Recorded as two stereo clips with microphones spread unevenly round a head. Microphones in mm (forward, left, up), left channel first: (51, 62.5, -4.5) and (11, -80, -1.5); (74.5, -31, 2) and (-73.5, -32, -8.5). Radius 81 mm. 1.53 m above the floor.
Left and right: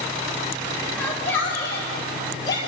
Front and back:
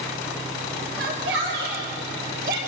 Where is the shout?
155° left, 6.5 m; by 2.6 s 145° left, 7 m.